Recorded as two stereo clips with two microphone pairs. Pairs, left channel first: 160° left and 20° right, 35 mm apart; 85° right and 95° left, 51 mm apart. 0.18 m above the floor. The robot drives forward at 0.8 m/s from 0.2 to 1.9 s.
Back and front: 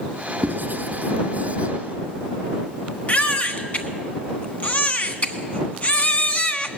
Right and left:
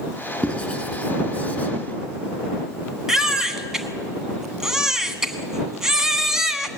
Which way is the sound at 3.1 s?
170° left.